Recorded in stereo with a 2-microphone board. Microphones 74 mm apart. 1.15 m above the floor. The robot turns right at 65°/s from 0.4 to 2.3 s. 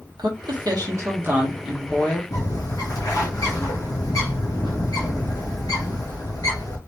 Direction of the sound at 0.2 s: 90° right.